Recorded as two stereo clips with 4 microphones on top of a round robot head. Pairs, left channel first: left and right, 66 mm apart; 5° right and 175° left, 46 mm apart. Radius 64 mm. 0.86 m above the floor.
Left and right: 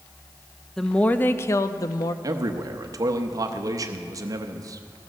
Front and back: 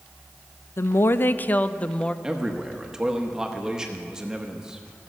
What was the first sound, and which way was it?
A woman speaking, 5° left.